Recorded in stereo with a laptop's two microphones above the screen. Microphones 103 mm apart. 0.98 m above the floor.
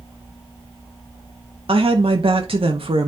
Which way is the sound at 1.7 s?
65° right (ahead or behind).